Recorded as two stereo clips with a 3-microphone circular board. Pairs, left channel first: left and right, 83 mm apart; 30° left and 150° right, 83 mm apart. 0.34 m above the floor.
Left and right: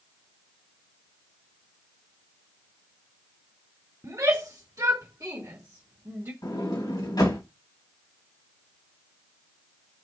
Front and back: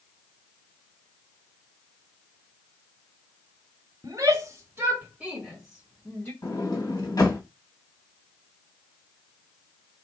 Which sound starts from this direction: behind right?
A shout, at 4.0 s.